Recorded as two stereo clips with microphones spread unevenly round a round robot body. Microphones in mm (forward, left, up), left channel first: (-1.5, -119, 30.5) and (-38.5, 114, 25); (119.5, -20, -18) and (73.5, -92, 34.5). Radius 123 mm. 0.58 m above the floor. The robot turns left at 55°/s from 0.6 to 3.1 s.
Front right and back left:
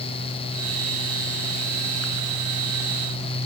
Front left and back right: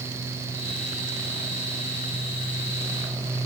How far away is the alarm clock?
I don't hear an alarm clock.